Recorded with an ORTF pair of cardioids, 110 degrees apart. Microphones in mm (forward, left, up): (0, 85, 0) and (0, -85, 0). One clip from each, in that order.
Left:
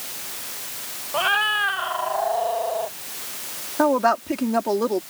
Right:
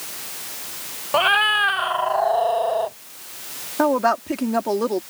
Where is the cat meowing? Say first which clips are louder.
Right 4 dB; 55° right; by 2.9 s 65° right.